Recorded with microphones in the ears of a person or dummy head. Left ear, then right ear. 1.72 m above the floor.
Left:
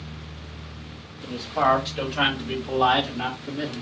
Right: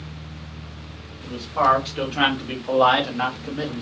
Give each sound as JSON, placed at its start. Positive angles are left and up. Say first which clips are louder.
{"t": 1.2, "sound": "a man speaking", "louder": "right 2 dB", "side_deg": -5, "distance_m": 1.4}